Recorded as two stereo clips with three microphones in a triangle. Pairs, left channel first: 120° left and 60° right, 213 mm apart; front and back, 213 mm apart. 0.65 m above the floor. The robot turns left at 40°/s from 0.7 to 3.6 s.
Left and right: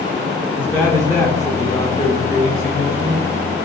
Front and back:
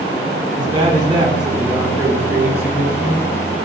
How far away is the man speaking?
About 0.5 m.